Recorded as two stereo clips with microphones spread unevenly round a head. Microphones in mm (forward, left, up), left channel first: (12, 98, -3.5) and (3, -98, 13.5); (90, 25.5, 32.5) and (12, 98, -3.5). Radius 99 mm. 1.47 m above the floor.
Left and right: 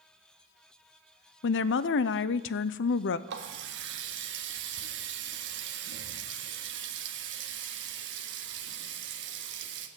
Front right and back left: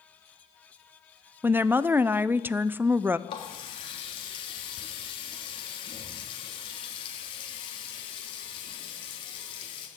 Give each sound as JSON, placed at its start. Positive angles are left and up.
{"t": 1.4, "sound": "a woman speaking", "azimuth_deg": 75, "distance_m": 0.5}
{"t": 3.3, "sound": "a running tap", "azimuth_deg": -80, "distance_m": 1.4}